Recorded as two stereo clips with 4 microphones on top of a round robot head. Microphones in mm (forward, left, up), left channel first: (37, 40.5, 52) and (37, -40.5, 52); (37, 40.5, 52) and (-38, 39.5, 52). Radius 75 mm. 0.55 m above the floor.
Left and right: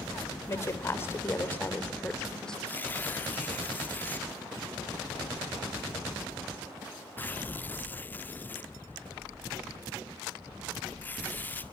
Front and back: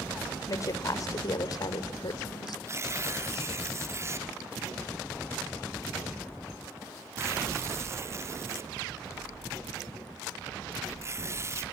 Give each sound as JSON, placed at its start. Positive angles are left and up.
{"t": 0.5, "sound": "a woman speaking", "azimuth_deg": 40, "distance_m": 3.0}
{"t": 2.7, "sound": "tearing paper", "azimuth_deg": 150, "distance_m": 1.7}